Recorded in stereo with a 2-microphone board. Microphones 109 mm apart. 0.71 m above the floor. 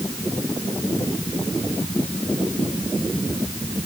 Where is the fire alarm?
No fire alarm in this recording.